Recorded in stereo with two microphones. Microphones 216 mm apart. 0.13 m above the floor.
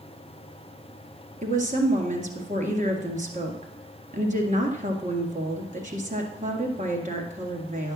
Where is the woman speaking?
35° right (ahead or behind), 1.6 m.